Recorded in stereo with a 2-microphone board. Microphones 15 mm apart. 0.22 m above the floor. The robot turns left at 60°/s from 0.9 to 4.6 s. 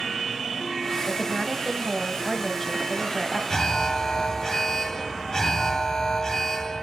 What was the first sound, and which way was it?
A woman speaking, 5° right (ahead or behind).